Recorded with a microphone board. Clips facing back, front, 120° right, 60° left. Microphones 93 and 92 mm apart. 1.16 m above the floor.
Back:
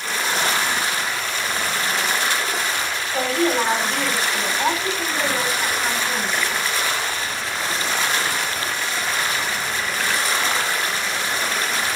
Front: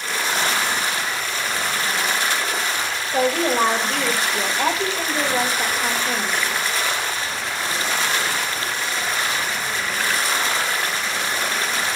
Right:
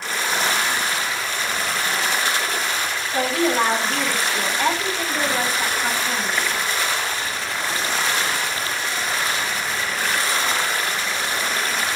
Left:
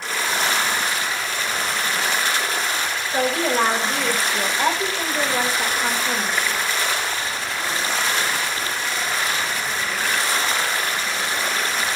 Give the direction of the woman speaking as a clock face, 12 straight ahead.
12 o'clock.